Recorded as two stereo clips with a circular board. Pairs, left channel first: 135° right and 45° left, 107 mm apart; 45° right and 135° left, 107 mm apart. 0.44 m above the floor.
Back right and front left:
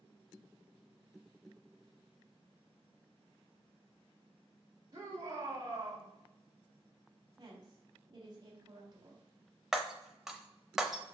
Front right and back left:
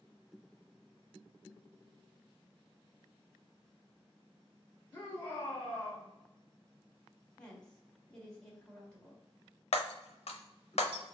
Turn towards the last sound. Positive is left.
turn(degrees=-40)